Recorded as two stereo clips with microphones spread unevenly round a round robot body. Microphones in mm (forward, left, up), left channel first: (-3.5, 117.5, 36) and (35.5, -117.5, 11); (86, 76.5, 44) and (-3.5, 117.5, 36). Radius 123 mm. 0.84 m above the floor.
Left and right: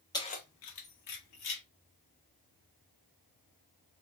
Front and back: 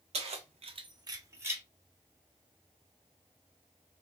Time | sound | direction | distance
0.1 | keys jangling | 175° left | 0.6 m